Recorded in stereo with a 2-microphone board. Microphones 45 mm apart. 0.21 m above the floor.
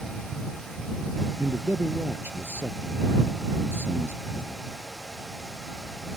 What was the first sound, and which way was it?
A man speaking, 55° right (ahead or behind).